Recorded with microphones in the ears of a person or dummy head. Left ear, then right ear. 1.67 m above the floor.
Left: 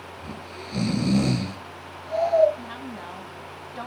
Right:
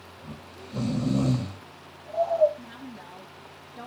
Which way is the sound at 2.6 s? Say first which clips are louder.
Left 7 dB; 55° left (ahead or behind).